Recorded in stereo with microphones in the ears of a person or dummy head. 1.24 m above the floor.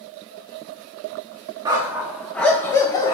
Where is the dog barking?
20° right (ahead or behind), 1.0 m; by 3.1 s 25° left (ahead or behind), 1.2 m.